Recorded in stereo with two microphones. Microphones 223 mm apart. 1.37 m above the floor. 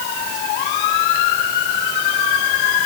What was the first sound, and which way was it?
Only background noise.